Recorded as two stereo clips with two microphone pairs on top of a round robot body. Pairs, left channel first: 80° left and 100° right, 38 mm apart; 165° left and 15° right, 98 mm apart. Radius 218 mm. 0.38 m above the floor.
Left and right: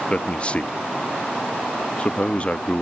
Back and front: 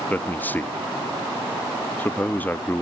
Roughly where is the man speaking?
Left.